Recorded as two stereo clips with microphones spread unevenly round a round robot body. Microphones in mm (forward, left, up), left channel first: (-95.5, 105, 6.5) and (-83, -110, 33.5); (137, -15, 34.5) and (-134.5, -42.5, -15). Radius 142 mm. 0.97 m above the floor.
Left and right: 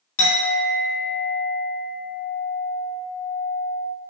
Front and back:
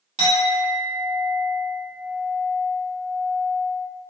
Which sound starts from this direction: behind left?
A clink, at 0.2 s.